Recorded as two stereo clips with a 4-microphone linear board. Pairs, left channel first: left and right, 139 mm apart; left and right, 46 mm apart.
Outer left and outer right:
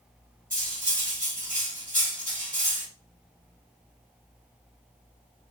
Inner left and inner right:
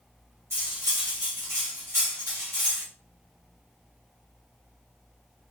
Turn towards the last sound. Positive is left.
turn(degrees=-70)  # may be behind; listen again after turning